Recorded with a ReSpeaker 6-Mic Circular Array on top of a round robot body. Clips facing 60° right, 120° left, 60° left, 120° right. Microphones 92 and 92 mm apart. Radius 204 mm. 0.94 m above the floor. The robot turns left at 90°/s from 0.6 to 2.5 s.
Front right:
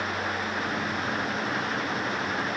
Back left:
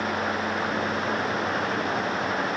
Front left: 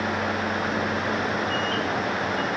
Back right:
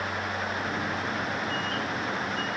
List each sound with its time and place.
Only background noise.